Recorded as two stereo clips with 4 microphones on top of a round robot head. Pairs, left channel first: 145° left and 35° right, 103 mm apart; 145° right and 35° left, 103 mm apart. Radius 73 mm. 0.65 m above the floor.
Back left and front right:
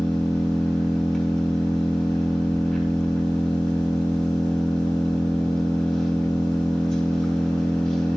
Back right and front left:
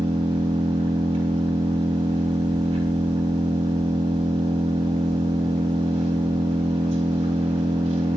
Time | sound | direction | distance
0.0 | an engine running | 60° left | 6.5 m